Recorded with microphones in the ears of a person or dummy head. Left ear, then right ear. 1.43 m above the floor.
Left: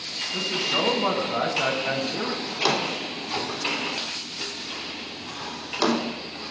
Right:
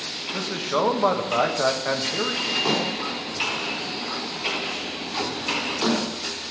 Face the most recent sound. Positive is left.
turn(degrees=70)  # may be behind; listen again after turning